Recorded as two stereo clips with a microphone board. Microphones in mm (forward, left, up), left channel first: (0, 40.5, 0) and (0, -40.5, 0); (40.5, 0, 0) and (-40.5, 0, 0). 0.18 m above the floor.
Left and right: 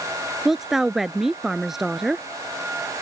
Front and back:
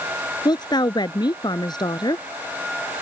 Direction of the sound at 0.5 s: 5° right.